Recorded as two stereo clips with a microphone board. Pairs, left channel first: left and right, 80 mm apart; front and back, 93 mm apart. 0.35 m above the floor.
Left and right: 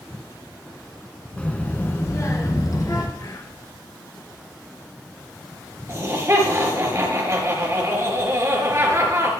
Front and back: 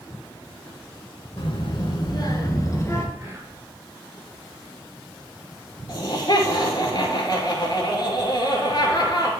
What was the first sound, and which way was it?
A child speaking, 15° left.